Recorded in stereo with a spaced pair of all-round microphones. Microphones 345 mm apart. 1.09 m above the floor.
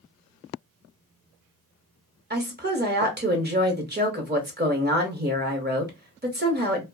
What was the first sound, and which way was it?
A woman speaking, 30° right (ahead or behind).